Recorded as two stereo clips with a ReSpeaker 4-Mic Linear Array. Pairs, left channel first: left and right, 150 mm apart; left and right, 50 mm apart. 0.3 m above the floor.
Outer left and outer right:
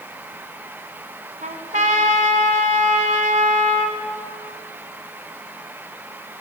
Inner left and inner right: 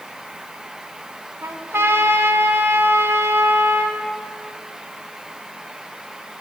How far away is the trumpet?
About 1.1 m.